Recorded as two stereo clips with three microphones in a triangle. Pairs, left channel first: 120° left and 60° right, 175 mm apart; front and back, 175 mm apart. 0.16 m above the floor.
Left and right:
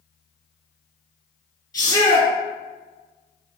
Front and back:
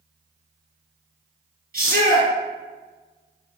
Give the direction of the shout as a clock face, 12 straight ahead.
6 o'clock.